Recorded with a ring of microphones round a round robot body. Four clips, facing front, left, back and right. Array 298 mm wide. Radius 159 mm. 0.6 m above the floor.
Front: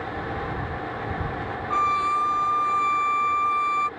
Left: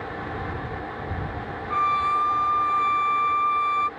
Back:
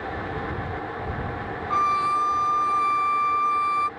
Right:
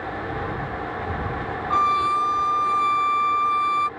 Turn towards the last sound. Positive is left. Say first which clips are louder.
# right 2 dB, back 1 dB
turn(degrees=-95)